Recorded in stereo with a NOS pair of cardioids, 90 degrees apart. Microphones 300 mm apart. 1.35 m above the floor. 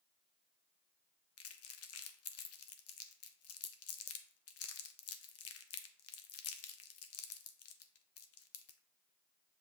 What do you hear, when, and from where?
1.4 s crumpling: 55° left, 0.6 m